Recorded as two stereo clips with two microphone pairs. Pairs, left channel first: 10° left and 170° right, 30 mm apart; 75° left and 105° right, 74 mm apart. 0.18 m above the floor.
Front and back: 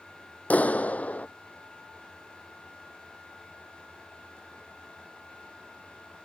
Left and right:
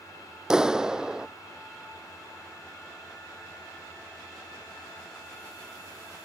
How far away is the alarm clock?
No alarm clock in this recording.